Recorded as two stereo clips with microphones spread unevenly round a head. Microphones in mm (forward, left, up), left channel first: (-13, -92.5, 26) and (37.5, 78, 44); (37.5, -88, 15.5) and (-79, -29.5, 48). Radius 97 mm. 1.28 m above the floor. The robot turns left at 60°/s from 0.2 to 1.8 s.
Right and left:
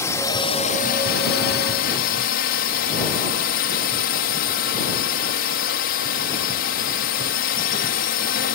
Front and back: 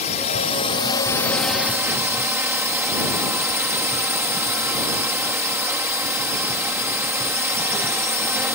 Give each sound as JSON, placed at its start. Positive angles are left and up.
{"t": 0.0, "sound": "a drone", "azimuth_deg": -35}